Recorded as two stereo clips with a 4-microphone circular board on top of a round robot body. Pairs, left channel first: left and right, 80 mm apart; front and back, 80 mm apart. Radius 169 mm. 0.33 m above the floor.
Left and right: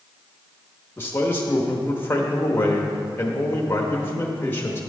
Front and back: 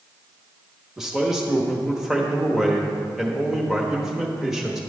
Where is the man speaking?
100° left, 1.1 m.